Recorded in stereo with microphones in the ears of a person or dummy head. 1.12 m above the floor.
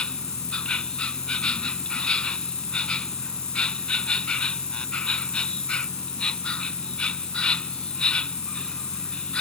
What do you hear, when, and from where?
0.0 s an insect: 5° left (ahead or behind)